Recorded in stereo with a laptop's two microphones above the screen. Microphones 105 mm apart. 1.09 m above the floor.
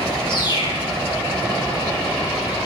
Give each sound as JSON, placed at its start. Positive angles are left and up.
{"t": 0.3, "sound": "a bird", "side_deg": 45, "distance_m": 1.5}